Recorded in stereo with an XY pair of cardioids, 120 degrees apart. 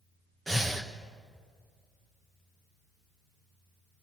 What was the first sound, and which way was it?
Breathing, 15° right.